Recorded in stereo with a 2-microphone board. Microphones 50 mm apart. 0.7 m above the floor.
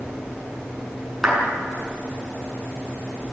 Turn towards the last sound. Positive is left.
turn(degrees=-5)  # may be behind; listen again after turning